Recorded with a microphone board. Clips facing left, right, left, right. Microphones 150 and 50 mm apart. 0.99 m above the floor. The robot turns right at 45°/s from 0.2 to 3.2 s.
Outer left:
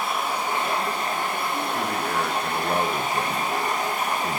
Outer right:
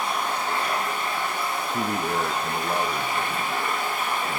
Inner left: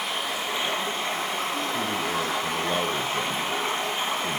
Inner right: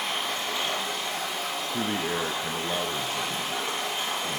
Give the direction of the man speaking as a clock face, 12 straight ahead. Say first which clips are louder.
Even, inner left 1 dB; 1 o'clock.